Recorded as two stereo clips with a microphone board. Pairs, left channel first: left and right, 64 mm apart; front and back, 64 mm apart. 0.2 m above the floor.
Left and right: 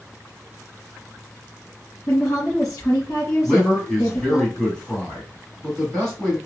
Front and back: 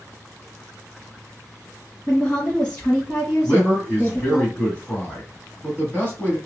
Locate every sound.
2.1 s a woman speaking: 75° left, 2 m
3.4 s a man speaking: 20° left, 1.8 m